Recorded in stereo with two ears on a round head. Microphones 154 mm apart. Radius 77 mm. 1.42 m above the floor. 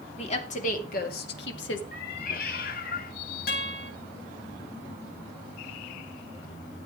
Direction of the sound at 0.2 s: 40° left (ahead or behind).